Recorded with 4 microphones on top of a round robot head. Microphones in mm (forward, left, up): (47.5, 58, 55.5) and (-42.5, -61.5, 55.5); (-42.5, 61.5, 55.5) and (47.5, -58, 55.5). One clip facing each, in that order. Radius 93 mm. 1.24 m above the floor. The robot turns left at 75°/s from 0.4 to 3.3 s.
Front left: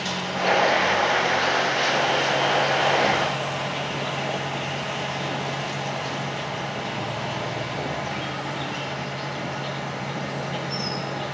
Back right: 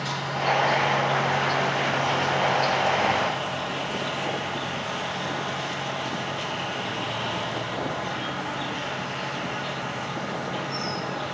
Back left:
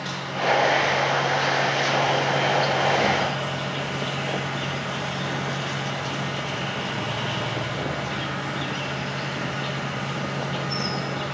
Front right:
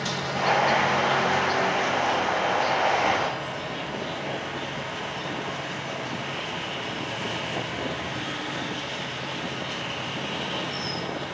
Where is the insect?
15° right, 6 m; by 11.3 s 130° left, 6 m.